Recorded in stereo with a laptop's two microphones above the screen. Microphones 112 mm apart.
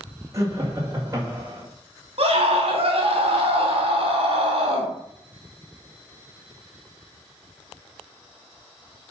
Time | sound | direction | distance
0.3 | laughter | 30° right (ahead or behind) | 2 m
2.2 | a scream | 60° right (ahead or behind) | 2.5 m